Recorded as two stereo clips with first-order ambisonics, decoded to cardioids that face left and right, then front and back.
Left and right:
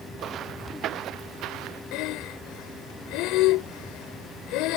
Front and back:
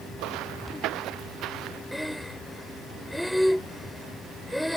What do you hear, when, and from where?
0.2 s footsteps: 145° right; by 1.8 s 130° right
1.9 s breathing: 90° left